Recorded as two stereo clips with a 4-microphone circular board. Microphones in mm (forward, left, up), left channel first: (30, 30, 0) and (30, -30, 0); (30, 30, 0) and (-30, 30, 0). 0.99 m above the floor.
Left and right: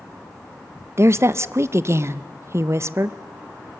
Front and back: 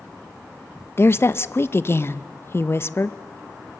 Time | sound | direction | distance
1.0 | a woman speaking | 45° right | 0.6 m